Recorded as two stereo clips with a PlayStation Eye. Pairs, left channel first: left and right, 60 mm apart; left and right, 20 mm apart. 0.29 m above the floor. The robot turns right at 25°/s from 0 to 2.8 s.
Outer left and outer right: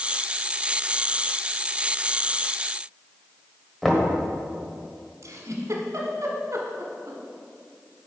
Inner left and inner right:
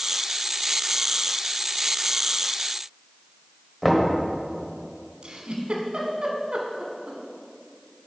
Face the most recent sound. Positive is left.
turn(degrees=-60)  # may be behind; listen again after turning